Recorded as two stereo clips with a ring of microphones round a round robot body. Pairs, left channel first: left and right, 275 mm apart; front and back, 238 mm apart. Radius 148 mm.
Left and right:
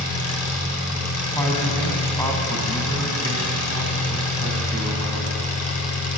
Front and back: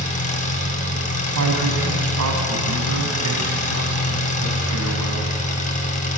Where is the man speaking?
170° left, 3.5 m.